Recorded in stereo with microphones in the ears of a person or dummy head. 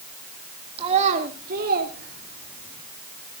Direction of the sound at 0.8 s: 30° right (ahead or behind).